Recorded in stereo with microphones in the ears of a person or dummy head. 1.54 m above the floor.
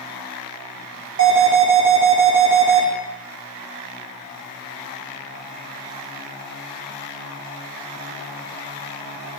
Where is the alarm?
60° right (ahead or behind), 1.8 m.